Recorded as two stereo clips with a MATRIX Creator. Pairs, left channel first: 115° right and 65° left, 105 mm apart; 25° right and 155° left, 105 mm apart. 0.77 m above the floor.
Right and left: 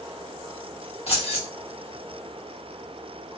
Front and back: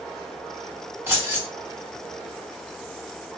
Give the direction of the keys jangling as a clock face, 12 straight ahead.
4 o'clock.